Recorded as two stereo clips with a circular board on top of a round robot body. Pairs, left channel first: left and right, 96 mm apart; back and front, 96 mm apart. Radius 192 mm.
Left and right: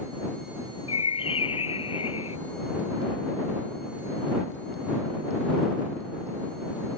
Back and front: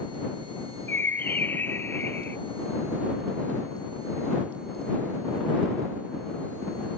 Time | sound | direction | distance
0.9 | a bird | 110° left | ?